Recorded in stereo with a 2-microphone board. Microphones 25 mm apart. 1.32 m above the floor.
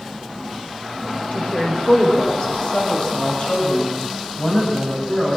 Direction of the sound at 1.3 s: 70° left (ahead or behind).